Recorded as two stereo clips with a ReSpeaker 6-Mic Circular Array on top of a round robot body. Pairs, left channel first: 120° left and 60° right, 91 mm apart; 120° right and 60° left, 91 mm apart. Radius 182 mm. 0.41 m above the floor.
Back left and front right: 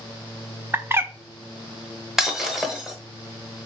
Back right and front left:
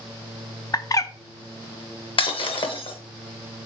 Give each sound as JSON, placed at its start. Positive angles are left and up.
{"t": 0.7, "sound": "a bird", "azimuth_deg": -110, "distance_m": 0.8}
{"t": 2.2, "sound": "breaking glass", "azimuth_deg": -145, "distance_m": 1.2}